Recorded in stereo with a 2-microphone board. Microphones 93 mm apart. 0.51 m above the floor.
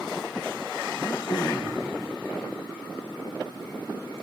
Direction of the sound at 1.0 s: 45° left (ahead or behind).